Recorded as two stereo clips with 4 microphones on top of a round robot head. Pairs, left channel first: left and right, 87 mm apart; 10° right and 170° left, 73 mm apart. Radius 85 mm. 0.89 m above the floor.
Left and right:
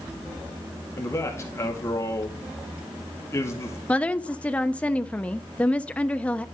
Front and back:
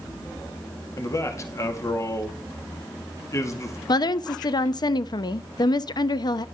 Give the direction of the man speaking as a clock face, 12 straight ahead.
11 o'clock.